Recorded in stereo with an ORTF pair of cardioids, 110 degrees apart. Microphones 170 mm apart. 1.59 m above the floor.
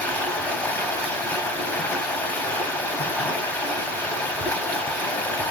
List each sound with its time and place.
0.0 s running water: 10° left, 0.7 m